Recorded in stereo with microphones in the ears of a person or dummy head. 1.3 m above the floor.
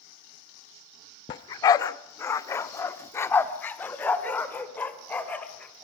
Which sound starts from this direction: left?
A dog barking, at 1.3 s.